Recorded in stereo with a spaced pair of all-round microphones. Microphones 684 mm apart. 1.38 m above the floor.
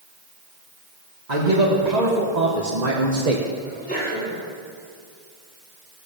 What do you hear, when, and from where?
1.3 s a man speaking: 75° right (ahead or behind), 2.5 m; by 3.5 s 60° right (ahead or behind), 1.4 m
3.6 s a sneeze: 10° left (ahead or behind), 6 m